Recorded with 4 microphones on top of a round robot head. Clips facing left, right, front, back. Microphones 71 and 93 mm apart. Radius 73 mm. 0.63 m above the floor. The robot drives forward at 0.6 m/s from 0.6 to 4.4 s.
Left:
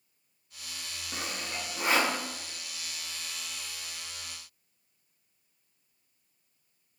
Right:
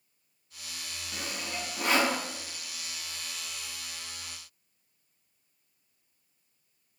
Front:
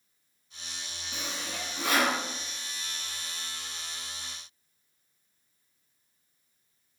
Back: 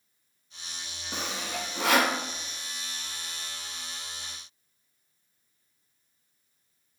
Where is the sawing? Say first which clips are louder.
Even, back 4 dB; 155° left, 0.6 m; by 2.2 s 165° left, 1.2 m.